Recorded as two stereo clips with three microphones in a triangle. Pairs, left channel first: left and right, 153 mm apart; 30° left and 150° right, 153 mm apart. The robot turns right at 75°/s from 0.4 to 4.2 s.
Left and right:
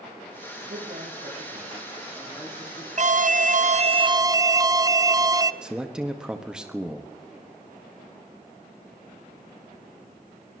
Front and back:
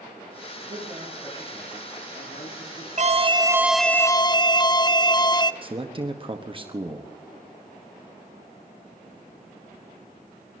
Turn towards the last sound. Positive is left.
turn(degrees=-170)